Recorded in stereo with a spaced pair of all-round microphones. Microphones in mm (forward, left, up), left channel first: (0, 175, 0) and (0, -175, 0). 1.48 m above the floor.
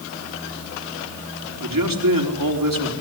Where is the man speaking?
70° right (ahead or behind), 4 m.